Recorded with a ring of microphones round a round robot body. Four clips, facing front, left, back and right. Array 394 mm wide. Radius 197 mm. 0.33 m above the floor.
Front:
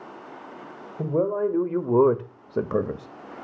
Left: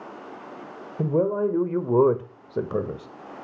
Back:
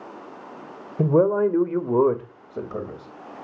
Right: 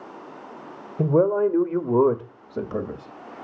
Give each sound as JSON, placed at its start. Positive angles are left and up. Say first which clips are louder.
{"t": 1.0, "sound": "a man speaking", "louder": "right 4 dB, back 5 dB", "azimuth_deg": -160, "distance_m": 1.6}